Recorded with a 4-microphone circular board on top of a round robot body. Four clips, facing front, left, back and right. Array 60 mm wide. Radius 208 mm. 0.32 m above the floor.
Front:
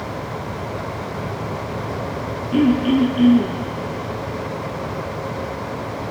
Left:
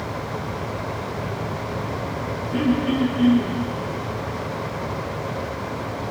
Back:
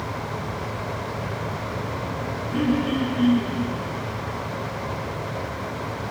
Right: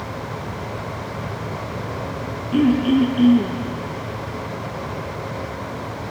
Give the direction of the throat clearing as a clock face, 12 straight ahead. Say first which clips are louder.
Right 5 dB, front 7 dB; 2 o'clock.